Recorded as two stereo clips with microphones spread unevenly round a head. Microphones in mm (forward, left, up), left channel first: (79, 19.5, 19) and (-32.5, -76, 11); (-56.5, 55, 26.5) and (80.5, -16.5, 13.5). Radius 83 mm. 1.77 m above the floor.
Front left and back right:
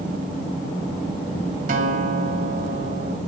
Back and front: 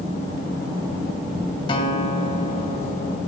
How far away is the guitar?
About 2 m.